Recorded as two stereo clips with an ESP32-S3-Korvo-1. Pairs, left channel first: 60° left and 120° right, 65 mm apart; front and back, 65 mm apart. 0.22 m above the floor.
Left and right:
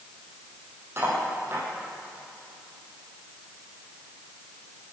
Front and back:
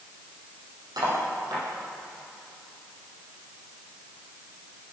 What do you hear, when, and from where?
1.0 s cutlery clinking: 175° right, 5.5 m